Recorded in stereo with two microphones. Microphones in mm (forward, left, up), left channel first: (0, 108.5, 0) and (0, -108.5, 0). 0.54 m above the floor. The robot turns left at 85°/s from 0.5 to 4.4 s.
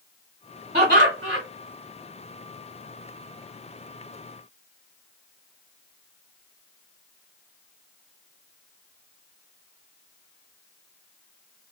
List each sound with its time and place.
0.7 s laughter: 45° right, 1.3 m; by 1.4 s 105° right, 1.3 m